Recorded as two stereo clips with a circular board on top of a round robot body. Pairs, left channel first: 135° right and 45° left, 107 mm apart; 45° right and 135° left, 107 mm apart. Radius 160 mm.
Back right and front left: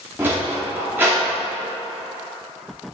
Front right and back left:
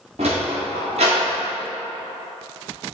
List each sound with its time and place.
0.2 s a sliding door: 115° left, 0.8 m